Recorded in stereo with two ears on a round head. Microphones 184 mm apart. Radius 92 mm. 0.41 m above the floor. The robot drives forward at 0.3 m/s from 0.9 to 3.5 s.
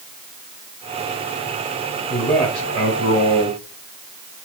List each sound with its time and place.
2.1 s a man speaking: 5° left (ahead or behind), 2 m